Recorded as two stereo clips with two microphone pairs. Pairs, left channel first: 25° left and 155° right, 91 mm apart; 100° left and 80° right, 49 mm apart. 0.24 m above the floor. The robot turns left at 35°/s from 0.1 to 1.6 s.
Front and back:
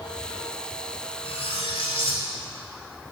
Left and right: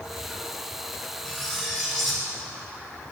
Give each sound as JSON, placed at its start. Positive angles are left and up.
{"t": 1.2, "sound": "cutlery clinking", "azimuth_deg": 30, "distance_m": 1.7}